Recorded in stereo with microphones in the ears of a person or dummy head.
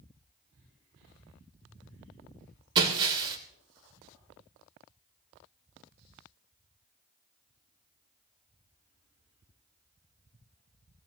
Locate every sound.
2.8 s breaking glass: 25° right (ahead or behind), 2.5 m